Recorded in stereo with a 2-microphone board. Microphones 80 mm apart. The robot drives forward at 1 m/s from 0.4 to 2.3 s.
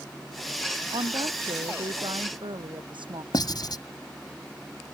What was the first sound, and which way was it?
A woman speaking, 85° right.